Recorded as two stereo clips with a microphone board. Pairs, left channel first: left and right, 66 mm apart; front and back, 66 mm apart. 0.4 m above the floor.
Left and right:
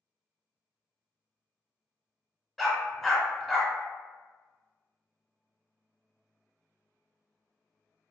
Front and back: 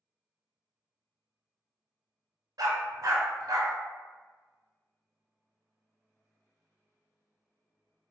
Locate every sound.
2.6 s a dog barking: straight behind, 0.8 m